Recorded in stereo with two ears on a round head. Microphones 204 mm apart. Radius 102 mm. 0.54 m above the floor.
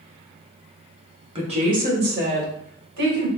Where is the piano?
No piano in this recording.